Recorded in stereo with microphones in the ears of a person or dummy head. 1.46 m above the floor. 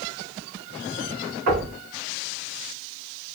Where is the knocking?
55° right (ahead or behind), 2.5 m.